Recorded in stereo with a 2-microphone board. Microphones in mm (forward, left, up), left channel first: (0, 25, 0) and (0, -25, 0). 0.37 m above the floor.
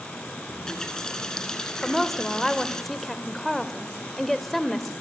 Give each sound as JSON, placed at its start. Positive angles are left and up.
{"t": 0.5, "sound": "a running tap", "side_deg": 15, "distance_m": 2.5}
{"t": 1.8, "sound": "a woman speaking", "side_deg": 5, "distance_m": 0.9}